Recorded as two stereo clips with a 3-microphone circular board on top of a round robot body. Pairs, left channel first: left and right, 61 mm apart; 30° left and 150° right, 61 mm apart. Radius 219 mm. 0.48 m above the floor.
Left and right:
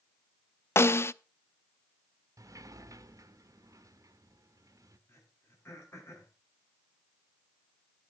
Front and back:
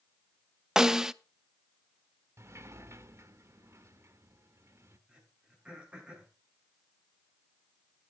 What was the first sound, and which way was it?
A snare drum, 130° left.